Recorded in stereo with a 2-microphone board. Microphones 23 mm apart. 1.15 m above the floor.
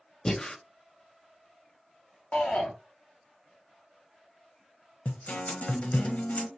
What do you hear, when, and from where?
0.2 s breathing: 25° left (ahead or behind), 0.7 m
2.3 s a shout: 55° left (ahead or behind), 1.1 m
5.0 s a guitar: 70° left (ahead or behind), 1.1 m